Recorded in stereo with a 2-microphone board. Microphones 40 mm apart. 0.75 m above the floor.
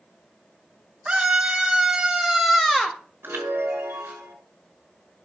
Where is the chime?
75° right (ahead or behind), 5 m.